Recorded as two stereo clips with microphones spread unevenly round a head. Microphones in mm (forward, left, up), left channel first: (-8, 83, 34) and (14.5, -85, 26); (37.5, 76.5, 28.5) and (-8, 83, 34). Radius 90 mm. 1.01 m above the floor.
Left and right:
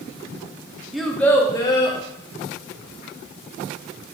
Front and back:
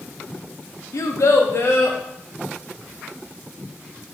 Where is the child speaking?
5° left, 0.6 m; by 2.0 s 30° left, 1.1 m.